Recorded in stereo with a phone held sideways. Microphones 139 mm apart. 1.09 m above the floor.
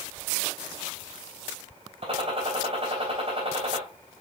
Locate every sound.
2.0 s a gunshot: 45° right (ahead or behind), 3.5 m